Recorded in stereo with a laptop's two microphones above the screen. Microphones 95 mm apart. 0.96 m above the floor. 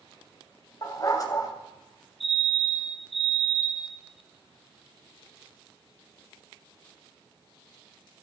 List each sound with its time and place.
0.8 s a dog barking: 40° left (ahead or behind), 2.5 m
2.2 s a fire alarm: centre (ahead or behind), 3.5 m